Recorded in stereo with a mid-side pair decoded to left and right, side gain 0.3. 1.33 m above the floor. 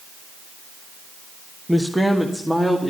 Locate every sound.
1.7 s a man speaking: straight ahead, 1.2 m; by 2.9 s 10° right, 2.5 m